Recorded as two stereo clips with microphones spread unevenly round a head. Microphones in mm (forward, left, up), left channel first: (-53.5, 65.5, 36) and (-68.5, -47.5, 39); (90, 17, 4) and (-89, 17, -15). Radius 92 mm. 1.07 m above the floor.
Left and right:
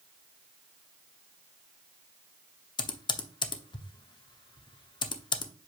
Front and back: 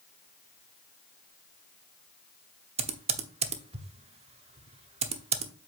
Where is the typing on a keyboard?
125° left, 0.9 m.